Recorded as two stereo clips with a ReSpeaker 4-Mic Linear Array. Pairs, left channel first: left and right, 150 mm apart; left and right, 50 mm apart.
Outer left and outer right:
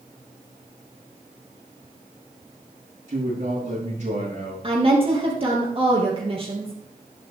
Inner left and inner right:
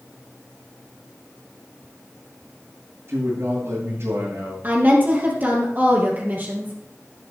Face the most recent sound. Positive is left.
turn(degrees=-35)  # may be behind; listen again after turning